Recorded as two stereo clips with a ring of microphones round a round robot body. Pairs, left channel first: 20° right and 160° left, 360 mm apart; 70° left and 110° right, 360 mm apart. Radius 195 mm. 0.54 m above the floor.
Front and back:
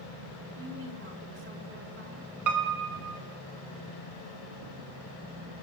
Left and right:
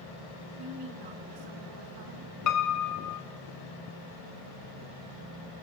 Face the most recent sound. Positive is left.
turn(degrees=115)